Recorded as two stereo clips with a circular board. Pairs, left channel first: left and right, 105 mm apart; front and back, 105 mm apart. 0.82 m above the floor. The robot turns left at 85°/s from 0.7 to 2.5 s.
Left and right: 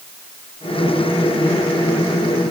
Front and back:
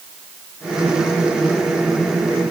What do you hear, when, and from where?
Only background noise.